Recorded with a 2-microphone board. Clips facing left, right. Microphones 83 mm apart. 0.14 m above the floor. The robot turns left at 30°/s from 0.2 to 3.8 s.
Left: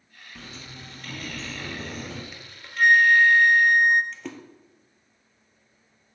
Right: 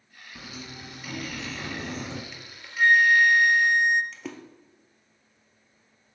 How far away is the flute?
About 0.5 m.